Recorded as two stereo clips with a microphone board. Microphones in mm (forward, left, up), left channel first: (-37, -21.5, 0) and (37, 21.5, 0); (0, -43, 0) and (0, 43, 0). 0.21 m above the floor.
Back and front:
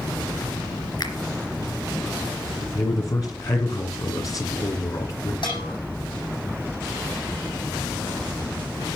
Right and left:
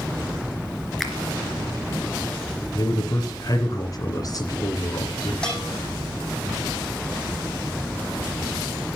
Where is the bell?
170° right, 9 m.